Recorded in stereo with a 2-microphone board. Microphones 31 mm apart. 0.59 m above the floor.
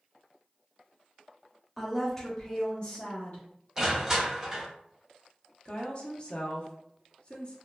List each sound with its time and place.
1.8 s a woman speaking: 5° right (ahead or behind), 0.8 m; by 3.5 s 50° left (ahead or behind), 1.0 m
3.8 s crushing: 15° right (ahead or behind), 1.1 m
5.7 s a woman speaking: 35° left (ahead or behind), 0.7 m